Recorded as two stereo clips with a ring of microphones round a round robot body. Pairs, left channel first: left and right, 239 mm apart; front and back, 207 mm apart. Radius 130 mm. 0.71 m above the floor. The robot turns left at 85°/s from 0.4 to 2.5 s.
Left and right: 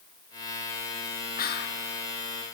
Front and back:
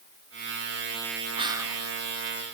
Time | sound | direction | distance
1.4 | whispering | 125° left | 0.8 m